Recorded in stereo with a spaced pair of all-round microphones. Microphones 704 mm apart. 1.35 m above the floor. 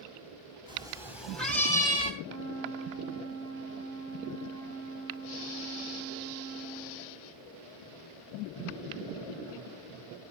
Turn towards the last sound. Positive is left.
turn(degrees=5)  # may be behind; listen again after turning